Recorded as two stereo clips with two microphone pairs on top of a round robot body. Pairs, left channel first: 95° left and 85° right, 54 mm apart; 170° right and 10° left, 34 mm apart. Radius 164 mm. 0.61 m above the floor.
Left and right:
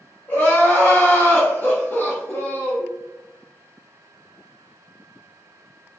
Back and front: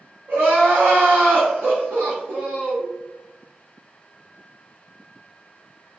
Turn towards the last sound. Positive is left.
turn(degrees=30)